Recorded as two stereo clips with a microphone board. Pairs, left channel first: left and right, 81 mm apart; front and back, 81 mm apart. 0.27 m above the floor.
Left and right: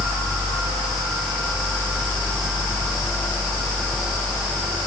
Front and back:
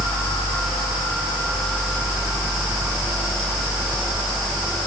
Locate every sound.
Only background noise.